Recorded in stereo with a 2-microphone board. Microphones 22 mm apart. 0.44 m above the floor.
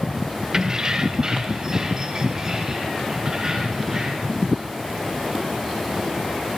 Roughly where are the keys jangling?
Right.